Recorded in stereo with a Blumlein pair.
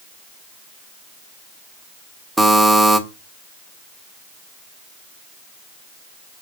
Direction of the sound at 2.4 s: 5° right.